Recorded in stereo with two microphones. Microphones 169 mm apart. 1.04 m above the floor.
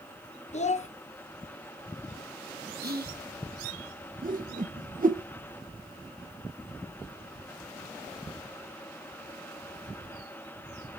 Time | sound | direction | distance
0.5 | a child speaking | 40° left (ahead or behind) | 0.6 m
2.8 | whispering | 65° right (ahead or behind) | 1.0 m
4.2 | a whoosh | 55° right (ahead or behind) | 0.5 m